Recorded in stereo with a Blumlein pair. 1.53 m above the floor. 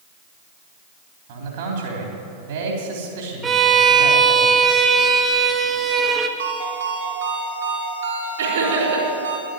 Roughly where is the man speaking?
Ahead right.